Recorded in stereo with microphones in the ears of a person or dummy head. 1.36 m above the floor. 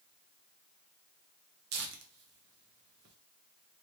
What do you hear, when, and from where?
1.7 s tearing paper: 60° right (ahead or behind), 0.8 m